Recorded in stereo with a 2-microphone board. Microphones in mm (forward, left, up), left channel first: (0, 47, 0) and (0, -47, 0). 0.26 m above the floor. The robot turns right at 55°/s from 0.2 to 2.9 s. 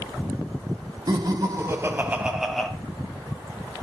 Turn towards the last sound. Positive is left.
turn(degrees=20)